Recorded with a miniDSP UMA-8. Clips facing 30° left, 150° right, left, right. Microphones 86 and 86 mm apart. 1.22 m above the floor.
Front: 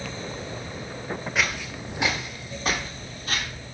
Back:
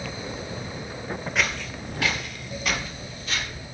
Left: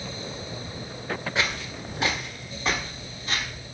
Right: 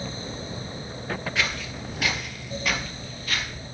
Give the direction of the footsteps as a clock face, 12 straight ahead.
8 o'clock.